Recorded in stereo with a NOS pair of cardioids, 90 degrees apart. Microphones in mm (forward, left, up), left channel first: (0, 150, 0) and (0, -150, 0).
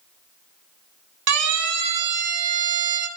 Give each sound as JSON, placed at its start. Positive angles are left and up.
{"t": 1.3, "sound": "a siren", "azimuth_deg": -60, "distance_m": 3.5}